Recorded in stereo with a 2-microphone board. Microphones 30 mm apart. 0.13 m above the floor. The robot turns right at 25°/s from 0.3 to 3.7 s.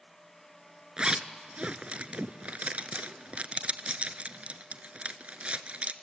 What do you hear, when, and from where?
1.0 s a zipper: 30° right (ahead or behind), 0.5 m; by 5.9 s 50° right (ahead or behind), 0.5 m